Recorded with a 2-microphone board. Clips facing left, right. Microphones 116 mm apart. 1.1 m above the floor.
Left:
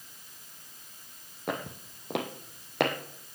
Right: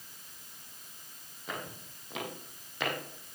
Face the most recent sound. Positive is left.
turn(degrees=70)  # may be behind; listen again after turning